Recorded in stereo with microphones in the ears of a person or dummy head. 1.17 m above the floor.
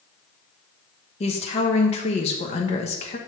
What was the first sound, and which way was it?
A woman speaking, 35° left (ahead or behind).